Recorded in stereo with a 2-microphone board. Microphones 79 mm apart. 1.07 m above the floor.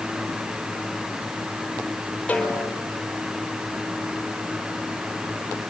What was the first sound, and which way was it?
A snare drum, 15° left (ahead or behind).